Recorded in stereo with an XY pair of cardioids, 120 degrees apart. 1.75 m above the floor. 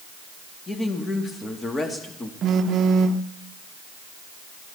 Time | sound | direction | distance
0.7 | a woman speaking | 25° left | 3 m
2.4 | a phone buzzing | 50° right | 0.8 m